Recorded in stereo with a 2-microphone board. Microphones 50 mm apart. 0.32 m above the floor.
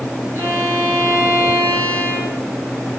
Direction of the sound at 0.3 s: 50° right (ahead or behind).